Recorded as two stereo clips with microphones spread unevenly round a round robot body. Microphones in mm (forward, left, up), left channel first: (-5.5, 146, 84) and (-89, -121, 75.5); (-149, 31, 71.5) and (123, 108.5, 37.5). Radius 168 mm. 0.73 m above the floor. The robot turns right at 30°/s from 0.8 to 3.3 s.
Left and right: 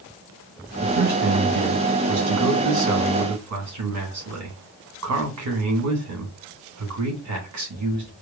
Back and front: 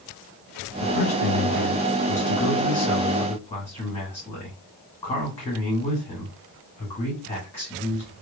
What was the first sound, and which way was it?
A man speaking, 160° right.